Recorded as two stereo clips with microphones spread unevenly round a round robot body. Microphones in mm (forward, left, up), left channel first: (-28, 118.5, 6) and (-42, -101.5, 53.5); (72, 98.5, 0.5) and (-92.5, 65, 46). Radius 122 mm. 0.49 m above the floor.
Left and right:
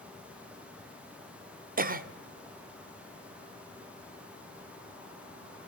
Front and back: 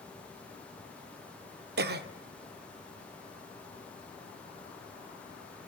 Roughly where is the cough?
Behind right.